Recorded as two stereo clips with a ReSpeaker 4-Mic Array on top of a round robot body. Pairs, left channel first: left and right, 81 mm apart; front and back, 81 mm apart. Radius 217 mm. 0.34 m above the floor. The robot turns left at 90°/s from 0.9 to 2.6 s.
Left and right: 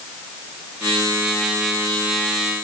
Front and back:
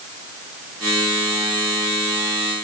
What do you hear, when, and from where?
Only background noise.